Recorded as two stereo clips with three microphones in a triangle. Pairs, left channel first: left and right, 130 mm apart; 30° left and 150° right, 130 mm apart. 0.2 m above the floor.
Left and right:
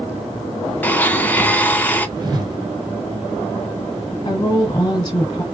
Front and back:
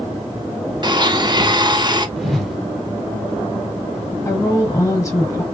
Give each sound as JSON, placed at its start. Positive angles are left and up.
{"t": 0.8, "sound": "a blender", "azimuth_deg": 165, "distance_m": 0.6}
{"t": 2.2, "sound": "a whoosh", "azimuth_deg": -60, "distance_m": 0.9}
{"t": 4.2, "sound": "a woman speaking", "azimuth_deg": 70, "distance_m": 1.5}